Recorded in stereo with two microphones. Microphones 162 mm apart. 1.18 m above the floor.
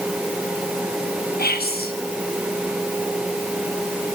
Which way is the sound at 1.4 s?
70° left (ahead or behind).